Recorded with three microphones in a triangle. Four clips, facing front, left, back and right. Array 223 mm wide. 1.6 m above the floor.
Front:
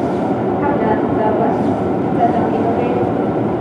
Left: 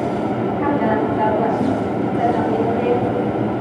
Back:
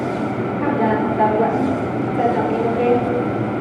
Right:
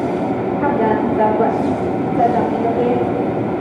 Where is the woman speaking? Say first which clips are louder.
Right 2 dB, even; 45° right, 5.5 m; by 3.0 s 35° right, 4 m.